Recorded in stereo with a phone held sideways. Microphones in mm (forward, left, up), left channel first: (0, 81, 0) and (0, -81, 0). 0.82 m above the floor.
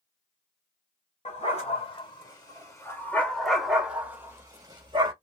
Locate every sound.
1.2 s a dog barking: 45° left (ahead or behind), 1.7 m; by 5.1 s 35° right (ahead or behind), 1.5 m